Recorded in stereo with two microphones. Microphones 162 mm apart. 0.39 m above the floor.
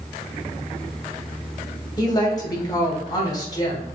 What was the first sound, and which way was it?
A woman speaking, 25° left (ahead or behind).